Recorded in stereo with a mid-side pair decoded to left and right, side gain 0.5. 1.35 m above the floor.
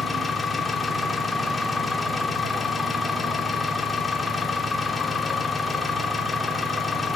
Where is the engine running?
25° left, 4 m.